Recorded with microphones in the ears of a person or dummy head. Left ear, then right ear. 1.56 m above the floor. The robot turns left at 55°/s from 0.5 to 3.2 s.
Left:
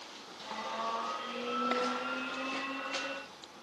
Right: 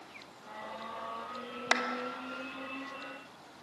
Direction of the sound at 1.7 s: 45° right (ahead or behind).